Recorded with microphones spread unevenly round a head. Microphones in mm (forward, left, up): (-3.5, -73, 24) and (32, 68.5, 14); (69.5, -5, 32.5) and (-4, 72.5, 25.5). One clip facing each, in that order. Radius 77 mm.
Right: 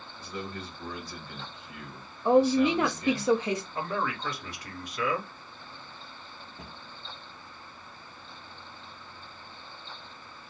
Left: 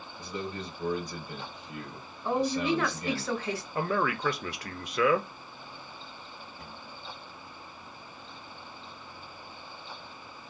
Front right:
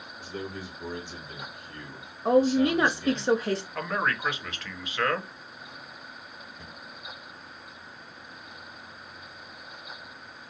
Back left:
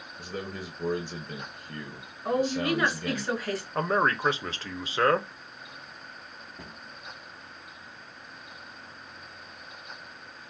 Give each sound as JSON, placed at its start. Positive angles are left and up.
{"t": 0.2, "sound": "a man speaking", "azimuth_deg": 145, "distance_m": 0.9}
{"t": 2.2, "sound": "a woman speaking", "azimuth_deg": -60, "distance_m": 0.6}
{"t": 3.8, "sound": "a man speaking", "azimuth_deg": 80, "distance_m": 0.8}
{"t": 6.6, "sound": "a cupboard door", "azimuth_deg": -170, "distance_m": 0.8}